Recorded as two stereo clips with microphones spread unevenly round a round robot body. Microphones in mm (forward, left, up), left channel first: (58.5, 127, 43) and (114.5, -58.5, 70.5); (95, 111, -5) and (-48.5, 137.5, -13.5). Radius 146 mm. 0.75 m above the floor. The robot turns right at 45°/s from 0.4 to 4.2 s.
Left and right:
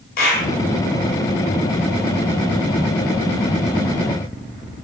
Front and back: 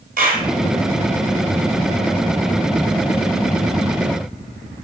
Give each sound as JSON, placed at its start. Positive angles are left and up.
{"t": 0.2, "sound": "a clap", "azimuth_deg": 155, "distance_m": 3.0}